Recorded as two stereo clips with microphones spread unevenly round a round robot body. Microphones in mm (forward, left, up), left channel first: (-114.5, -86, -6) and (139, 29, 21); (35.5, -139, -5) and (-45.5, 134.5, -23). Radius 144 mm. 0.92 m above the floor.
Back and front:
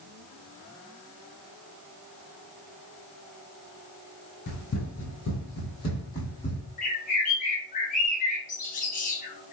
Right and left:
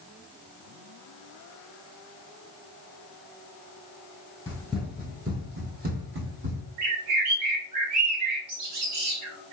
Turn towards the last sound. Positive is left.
turn(degrees=140)